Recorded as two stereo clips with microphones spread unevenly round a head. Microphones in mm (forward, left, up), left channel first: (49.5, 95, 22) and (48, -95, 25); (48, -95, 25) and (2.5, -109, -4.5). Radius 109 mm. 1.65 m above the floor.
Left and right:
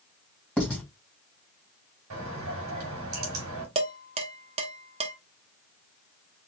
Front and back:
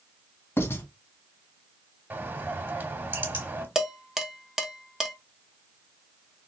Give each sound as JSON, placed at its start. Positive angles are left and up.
{"t": 0.6, "sound": "writing", "azimuth_deg": 5, "distance_m": 1.9}
{"t": 2.1, "sound": "a bird", "azimuth_deg": -105, "distance_m": 2.5}
{"t": 3.8, "sound": "dishes clattering", "azimuth_deg": -50, "distance_m": 1.0}